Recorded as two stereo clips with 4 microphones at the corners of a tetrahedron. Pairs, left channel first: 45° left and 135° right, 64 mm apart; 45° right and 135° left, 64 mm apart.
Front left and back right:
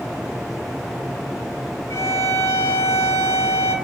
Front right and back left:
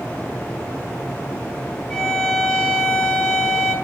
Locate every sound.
1.9 s a violin: 35° left, 0.6 m